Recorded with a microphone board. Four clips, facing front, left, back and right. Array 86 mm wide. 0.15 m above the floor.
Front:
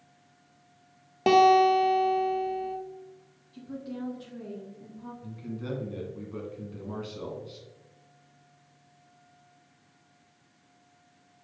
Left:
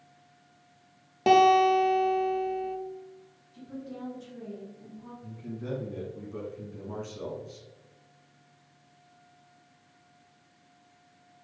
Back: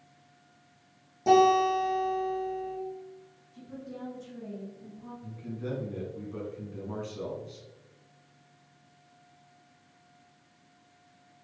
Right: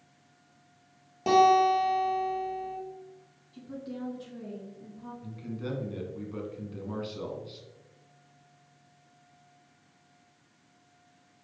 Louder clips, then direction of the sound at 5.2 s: Right 1 dB, even; 70° right.